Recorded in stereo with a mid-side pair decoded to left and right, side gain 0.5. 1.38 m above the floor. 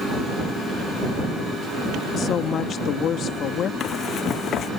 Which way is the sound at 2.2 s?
55° left.